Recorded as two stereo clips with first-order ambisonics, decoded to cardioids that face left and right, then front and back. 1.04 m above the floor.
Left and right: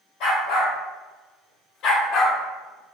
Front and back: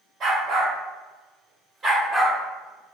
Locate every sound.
0.2 s a dog barking: 130° left, 1.8 m; by 2.9 s 30° left, 0.6 m